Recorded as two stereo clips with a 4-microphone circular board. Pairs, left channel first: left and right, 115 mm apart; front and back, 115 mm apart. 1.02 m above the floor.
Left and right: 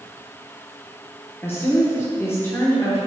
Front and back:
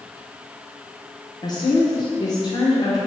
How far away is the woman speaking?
About 0.7 m.